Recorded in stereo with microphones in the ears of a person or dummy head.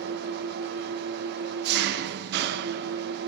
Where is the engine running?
70° right (ahead or behind), 0.8 m.